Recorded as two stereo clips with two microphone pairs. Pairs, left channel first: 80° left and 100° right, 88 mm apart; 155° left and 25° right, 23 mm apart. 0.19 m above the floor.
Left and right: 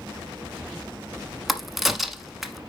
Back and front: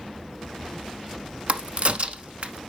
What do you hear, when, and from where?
1.5 s a crack: 15° right, 0.9 m